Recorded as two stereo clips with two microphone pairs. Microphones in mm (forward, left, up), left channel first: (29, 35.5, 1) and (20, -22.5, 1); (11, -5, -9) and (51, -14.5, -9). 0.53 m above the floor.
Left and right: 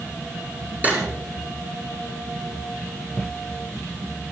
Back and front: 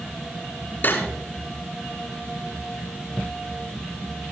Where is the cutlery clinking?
160° right, 6 m.